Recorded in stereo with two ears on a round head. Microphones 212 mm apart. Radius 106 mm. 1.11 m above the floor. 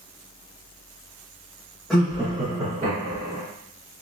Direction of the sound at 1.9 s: 5° left (ahead or behind).